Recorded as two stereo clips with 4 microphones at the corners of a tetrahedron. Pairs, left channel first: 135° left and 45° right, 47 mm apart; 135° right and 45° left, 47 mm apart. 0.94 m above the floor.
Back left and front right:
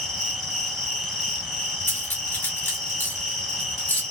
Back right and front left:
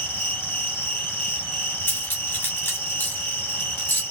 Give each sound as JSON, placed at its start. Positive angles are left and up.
{"t": 0.0, "sound": "an insect", "azimuth_deg": -145, "distance_m": 1.5}
{"t": 1.9, "sound": "cutlery clinking", "azimuth_deg": -175, "distance_m": 1.2}